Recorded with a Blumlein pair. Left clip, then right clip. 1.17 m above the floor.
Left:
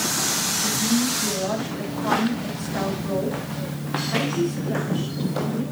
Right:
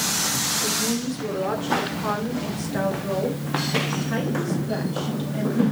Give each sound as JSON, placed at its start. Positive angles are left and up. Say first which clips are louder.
{"t": 0.6, "sound": "a woman speaking", "louder": "left 2 dB", "azimuth_deg": -65, "distance_m": 2.5}